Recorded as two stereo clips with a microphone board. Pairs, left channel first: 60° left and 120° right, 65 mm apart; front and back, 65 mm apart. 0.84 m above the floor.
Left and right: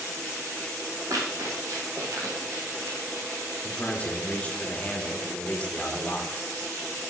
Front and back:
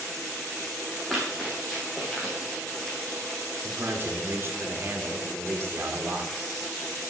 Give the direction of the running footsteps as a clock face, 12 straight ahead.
3 o'clock.